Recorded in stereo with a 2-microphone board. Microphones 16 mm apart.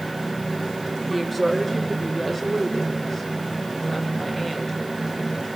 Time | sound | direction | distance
1.1 | a woman speaking | 5° left (ahead or behind) | 3 m